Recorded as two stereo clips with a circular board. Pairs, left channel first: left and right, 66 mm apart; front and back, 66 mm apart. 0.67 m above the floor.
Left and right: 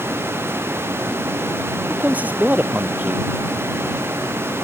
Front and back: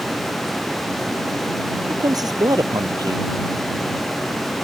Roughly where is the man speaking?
Behind right.